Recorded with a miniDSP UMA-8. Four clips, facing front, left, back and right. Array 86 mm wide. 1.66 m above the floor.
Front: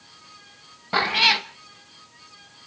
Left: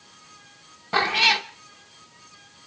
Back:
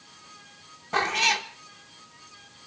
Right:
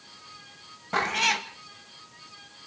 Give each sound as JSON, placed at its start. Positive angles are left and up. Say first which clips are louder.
{"t": 0.9, "sound": "a cat meowing", "louder": "left 4 dB, front 3 dB", "azimuth_deg": 25, "distance_m": 0.9}